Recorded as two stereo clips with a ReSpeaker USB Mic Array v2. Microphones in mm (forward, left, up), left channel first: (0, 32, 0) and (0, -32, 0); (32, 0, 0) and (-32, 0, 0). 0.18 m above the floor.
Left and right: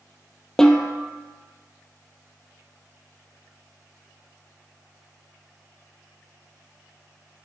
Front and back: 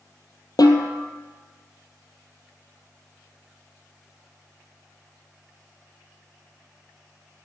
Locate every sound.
0.6 s a snare drum: 10° left, 1.4 m